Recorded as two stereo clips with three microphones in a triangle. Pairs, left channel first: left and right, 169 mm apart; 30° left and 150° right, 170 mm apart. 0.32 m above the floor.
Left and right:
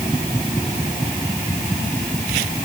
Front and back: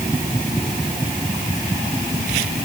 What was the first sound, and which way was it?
Only background noise.